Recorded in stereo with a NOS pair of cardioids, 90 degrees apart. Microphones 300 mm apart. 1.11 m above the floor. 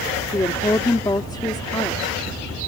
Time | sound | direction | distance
0.3 | a woman speaking | 15° left | ?